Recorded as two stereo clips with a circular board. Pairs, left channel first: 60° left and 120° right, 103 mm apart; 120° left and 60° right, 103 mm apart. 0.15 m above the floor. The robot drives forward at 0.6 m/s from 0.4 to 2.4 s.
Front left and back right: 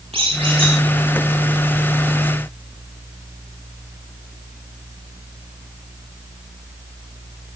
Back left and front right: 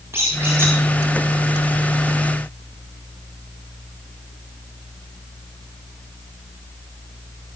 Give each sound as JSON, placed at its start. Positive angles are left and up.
{"t": 0.1, "sound": "a squeak", "azimuth_deg": -125, "distance_m": 8.0}